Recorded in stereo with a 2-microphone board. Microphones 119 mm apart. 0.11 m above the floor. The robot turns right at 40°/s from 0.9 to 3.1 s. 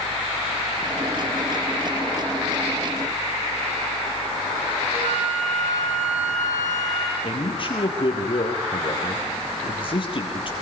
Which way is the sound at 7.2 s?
45° left (ahead or behind).